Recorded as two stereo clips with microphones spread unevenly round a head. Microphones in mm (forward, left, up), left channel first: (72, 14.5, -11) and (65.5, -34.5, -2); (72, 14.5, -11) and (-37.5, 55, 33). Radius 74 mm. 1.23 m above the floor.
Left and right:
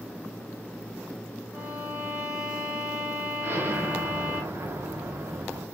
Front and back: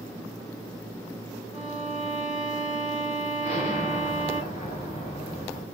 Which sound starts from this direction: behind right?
A violin, at 1.5 s.